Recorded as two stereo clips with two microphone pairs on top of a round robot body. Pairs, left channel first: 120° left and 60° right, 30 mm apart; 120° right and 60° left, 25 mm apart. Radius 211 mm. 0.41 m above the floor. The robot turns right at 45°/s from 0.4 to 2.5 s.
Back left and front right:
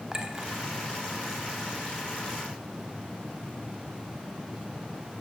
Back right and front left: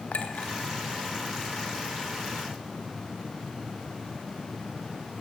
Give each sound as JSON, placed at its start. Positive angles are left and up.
{"t": 0.1, "sound": "a clink", "azimuth_deg": -120, "distance_m": 2.0}